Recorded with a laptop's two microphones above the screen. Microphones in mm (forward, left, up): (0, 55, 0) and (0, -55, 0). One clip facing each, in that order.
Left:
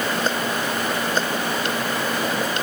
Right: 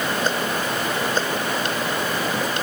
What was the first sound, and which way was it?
Only background noise.